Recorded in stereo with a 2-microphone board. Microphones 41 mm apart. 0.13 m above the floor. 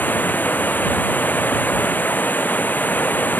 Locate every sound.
0.0 s running water: 50° left (ahead or behind)